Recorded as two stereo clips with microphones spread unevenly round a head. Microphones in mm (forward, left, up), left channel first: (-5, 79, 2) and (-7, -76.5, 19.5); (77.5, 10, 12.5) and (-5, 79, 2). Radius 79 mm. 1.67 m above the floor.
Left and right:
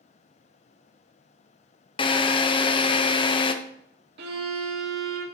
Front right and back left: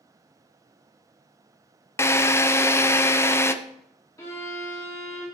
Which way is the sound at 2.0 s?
25° left.